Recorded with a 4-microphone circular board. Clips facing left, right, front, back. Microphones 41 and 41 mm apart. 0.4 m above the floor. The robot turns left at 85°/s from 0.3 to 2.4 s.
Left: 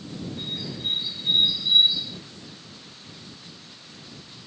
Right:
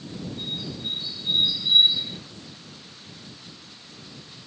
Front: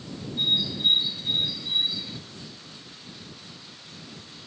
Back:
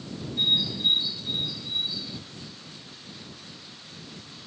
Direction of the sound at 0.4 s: 110° left.